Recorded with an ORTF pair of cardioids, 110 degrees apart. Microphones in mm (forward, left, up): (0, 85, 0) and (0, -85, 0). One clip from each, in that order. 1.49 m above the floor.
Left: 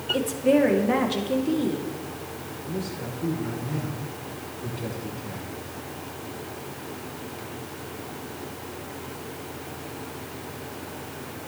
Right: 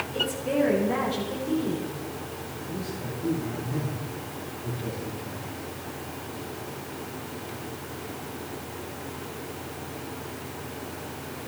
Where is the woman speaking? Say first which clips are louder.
Left 5 dB; 60° left, 2.5 m.